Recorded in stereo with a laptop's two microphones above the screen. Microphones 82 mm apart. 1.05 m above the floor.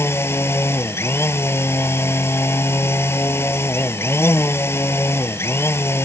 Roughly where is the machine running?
Left.